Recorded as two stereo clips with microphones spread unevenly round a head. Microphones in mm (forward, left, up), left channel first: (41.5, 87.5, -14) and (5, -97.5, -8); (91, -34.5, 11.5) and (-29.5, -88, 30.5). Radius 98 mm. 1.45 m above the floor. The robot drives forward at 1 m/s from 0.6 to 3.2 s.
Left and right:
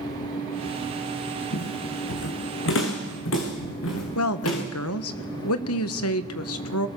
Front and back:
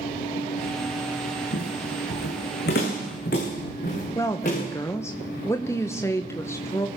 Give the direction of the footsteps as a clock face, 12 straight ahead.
10 o'clock.